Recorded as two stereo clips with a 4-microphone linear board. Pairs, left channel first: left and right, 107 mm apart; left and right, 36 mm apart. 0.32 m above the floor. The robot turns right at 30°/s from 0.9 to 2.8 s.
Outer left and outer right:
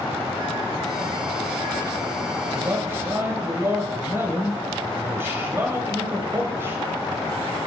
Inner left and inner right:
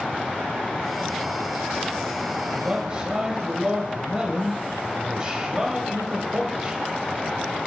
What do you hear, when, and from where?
2.4 s a man speaking: 30° right (ahead or behind), 1.3 m; by 6.8 s 25° right (ahead or behind), 1.3 m